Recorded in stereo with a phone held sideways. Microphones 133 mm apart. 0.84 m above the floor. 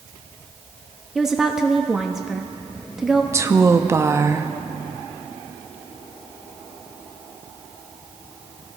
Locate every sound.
1.1 s a woman speaking: 5° right (ahead or behind), 0.8 m
3.3 s a woman speaking: 20° right (ahead or behind), 0.7 m